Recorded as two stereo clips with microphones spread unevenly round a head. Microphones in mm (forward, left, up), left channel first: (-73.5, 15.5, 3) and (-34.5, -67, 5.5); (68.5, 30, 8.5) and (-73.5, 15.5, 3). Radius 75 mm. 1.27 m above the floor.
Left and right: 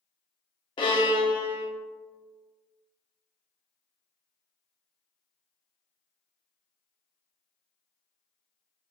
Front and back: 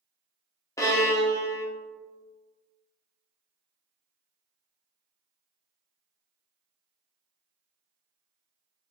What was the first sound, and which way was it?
A violin, 75° left.